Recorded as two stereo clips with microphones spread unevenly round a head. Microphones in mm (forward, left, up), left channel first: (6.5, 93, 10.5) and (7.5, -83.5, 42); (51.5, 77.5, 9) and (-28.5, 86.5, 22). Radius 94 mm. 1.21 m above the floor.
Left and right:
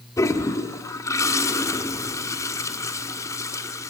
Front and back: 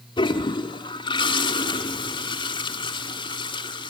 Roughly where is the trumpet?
I don't hear a trumpet.